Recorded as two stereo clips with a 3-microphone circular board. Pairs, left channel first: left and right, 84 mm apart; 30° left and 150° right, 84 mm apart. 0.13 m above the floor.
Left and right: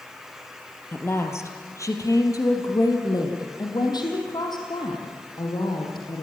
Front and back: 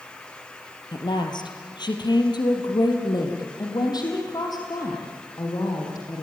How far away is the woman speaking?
About 3 m.